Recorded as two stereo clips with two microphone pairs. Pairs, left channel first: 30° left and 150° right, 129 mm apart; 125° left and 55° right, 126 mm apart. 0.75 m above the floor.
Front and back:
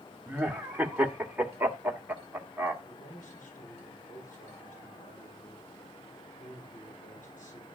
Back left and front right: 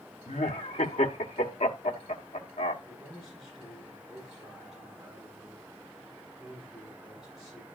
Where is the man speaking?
30° left, 8.5 m.